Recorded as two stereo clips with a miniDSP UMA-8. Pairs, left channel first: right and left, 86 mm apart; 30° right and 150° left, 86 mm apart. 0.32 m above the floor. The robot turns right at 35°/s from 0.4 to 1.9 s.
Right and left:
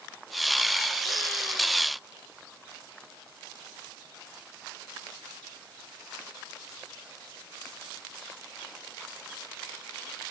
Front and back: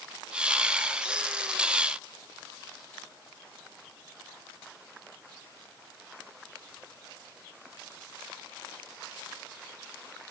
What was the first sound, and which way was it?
Only background noise.